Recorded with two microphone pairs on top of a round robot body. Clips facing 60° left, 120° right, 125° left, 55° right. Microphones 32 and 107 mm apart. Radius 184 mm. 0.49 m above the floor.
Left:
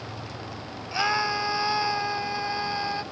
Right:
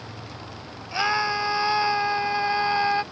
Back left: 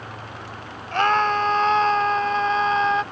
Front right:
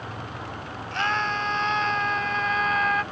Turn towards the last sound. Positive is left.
turn(degrees=-170)